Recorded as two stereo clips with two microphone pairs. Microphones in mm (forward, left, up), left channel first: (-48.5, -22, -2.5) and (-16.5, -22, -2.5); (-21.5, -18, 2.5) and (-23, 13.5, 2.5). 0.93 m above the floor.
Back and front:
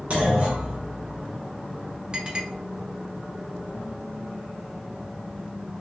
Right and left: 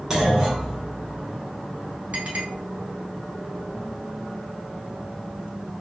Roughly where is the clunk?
Ahead left.